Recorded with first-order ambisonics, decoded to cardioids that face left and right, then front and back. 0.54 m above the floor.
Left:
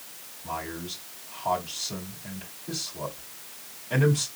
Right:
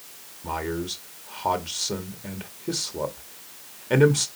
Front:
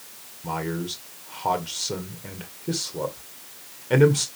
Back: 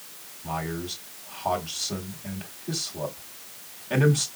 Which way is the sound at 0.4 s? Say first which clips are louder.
Right 5 dB, front 2 dB; 55° right.